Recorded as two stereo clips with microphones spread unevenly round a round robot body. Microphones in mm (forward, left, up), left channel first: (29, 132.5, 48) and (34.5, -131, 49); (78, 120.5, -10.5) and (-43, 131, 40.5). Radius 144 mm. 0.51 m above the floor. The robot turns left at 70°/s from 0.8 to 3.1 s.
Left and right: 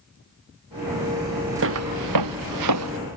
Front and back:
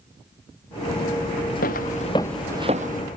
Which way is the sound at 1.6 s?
45° right.